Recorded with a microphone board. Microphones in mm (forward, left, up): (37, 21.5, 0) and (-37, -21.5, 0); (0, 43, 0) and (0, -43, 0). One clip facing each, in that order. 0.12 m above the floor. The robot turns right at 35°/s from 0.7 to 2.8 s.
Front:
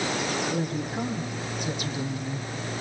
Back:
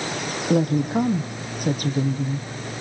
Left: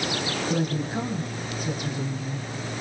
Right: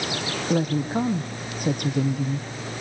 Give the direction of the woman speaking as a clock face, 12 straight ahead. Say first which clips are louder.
Back 9 dB, right 6 dB; 5 o'clock.